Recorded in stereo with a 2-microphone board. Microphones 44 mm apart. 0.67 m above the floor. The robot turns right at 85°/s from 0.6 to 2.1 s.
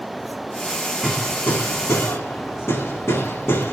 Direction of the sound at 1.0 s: 10° left (ahead or behind).